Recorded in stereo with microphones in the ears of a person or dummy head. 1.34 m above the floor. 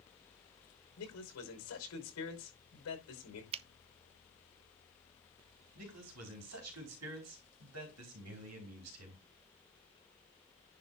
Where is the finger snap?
35° right (ahead or behind), 0.5 m.